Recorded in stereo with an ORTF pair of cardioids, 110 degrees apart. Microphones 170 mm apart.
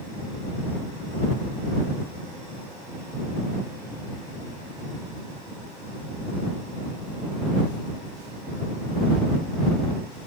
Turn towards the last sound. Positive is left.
No sound to turn to.